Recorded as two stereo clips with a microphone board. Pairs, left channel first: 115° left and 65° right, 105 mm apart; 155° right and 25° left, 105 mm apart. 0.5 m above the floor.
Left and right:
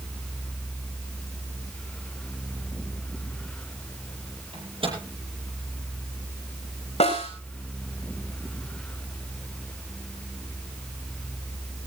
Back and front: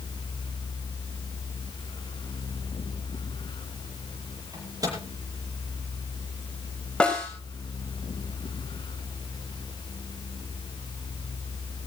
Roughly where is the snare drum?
Behind left.